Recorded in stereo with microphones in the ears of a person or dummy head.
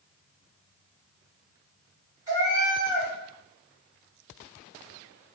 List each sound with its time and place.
2.3 s a cat meowing: 20° right (ahead or behind), 1.7 m